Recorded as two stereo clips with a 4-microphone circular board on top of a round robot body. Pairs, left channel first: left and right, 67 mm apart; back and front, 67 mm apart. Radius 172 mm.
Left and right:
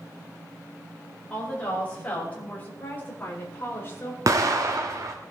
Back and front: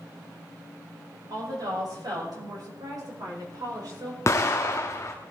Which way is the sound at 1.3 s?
15° left.